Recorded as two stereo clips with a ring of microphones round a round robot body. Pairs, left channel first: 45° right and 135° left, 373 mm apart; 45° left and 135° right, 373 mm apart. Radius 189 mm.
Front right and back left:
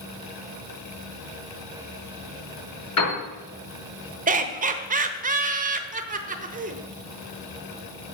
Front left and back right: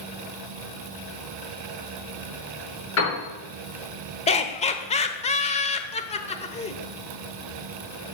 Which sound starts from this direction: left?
Laughter, at 4.3 s.